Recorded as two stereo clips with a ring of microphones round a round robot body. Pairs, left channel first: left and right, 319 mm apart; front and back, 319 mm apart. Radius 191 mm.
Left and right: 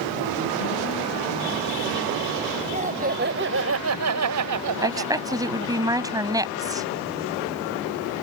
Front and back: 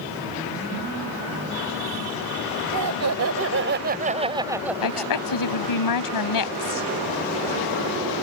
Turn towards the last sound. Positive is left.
turn(degrees=-10)